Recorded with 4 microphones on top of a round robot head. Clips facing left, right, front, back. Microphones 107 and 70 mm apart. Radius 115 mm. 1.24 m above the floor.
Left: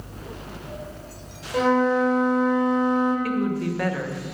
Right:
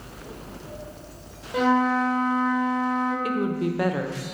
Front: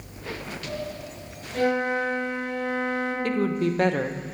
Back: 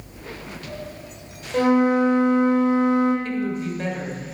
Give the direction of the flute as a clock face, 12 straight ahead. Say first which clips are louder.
Left 1 dB, back 6 dB; 6 o'clock.